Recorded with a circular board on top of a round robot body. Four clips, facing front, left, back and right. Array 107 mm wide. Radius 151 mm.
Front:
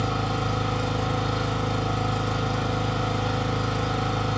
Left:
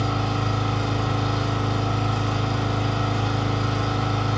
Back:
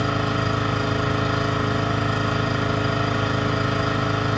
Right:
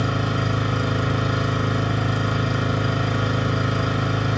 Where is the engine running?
150° right, 5.5 m.